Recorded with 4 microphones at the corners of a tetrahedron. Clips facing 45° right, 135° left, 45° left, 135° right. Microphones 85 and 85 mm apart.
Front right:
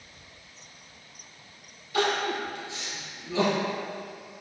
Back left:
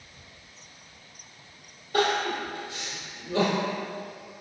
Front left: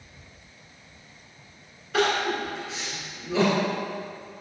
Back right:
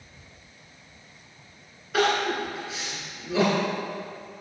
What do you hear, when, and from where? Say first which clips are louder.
1.9 s crying: back left 1 dB, even; 140° left, 1.4 m